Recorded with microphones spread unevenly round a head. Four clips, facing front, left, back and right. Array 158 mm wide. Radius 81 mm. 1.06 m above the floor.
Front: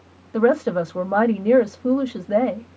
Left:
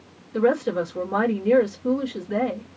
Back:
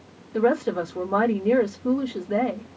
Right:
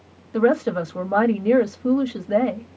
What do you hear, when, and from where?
0.3 s a woman speaking: 5° right, 1.6 m